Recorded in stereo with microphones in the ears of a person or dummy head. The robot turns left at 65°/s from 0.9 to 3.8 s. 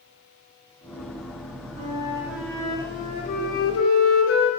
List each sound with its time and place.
1.8 s a flute: 135° right, 0.5 m; by 4.5 s 90° left, 0.5 m